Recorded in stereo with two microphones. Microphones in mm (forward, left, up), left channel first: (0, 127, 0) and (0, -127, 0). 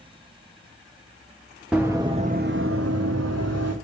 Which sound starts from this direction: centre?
Running footsteps, at 1.7 s.